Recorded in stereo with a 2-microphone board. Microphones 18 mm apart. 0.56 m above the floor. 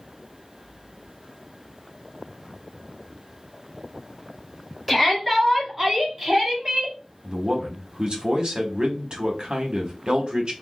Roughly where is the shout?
Centre.